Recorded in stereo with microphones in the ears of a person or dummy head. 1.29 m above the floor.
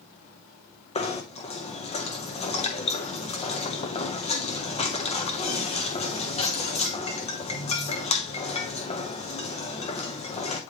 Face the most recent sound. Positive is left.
turn(degrees=30)  # may be behind; listen again after turning